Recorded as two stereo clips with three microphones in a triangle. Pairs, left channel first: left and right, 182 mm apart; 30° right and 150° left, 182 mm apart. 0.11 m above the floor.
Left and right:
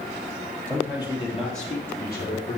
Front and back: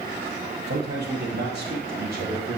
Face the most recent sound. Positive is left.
turn(degrees=115)